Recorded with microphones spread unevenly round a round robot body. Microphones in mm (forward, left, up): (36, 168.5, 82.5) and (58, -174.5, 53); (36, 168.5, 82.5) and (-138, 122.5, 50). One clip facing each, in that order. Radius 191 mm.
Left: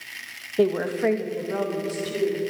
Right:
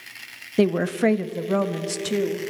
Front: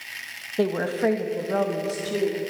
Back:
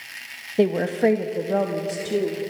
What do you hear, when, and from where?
0.6 s a woman speaking: 110° right, 0.8 m; by 2.4 s 90° right, 1.8 m